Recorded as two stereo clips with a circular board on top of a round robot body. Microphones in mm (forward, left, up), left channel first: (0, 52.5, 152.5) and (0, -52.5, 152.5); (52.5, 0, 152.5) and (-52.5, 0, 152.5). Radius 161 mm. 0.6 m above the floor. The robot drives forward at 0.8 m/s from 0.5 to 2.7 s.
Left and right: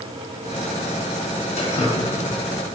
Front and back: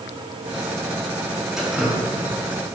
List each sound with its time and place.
1.6 s dripping: 95° left, 4 m; by 2.0 s 100° left, 4 m